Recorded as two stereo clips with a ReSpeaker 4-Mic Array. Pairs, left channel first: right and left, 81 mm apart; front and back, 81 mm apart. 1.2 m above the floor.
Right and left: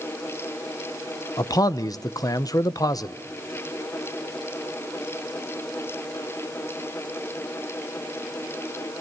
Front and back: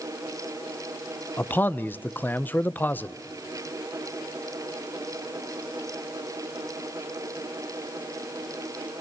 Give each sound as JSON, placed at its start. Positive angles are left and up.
{"t": 1.4, "sound": "a man speaking", "azimuth_deg": -60, "distance_m": 1.0}